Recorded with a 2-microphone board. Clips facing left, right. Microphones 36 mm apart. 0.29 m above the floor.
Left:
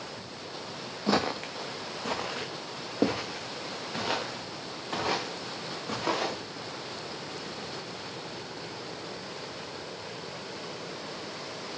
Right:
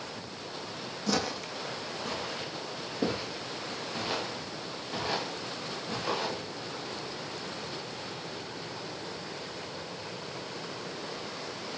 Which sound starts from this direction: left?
Footsteps, at 1.1 s.